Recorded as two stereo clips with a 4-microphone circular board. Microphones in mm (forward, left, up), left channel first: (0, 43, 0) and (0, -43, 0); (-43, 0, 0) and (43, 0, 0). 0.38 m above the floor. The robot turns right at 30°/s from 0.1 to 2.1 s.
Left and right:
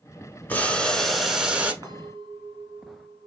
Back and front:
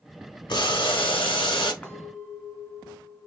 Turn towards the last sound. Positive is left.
turn(degrees=-110)